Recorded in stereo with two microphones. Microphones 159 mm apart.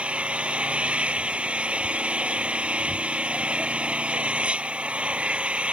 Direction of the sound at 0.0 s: 10° right (ahead or behind).